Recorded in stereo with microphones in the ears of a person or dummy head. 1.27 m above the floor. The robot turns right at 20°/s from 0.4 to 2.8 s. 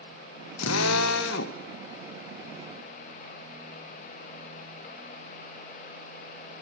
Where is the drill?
75° left (ahead or behind), 1.4 m; by 1.6 s 60° left (ahead or behind), 1.4 m.